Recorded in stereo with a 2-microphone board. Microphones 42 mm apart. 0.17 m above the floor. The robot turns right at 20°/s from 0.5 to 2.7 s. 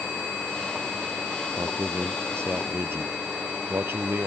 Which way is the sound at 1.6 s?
70° right (ahead or behind).